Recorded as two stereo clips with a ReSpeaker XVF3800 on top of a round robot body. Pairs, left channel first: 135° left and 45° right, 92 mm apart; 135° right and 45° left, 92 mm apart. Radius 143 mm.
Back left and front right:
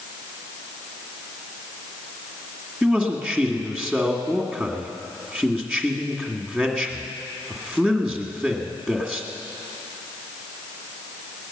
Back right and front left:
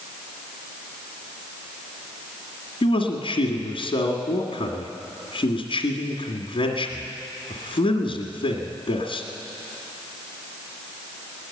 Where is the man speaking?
135° right, 1.8 m.